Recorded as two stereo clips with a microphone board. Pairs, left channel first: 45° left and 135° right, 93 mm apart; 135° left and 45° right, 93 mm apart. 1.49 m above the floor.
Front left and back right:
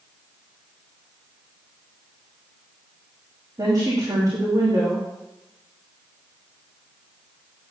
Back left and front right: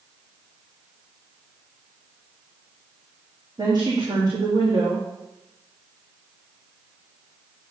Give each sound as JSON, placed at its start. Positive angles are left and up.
{"t": 3.6, "sound": "a woman speaking", "azimuth_deg": -85, "distance_m": 2.5}